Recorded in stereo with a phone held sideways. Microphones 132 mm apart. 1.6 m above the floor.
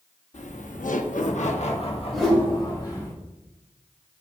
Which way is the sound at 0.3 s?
60° left (ahead or behind).